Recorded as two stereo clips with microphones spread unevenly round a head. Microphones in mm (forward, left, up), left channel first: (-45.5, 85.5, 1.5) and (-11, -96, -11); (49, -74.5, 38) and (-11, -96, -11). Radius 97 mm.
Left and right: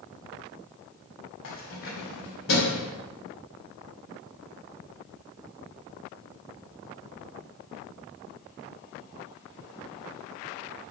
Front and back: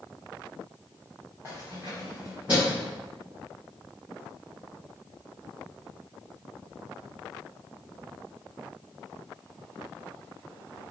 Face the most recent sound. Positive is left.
turn(degrees=115)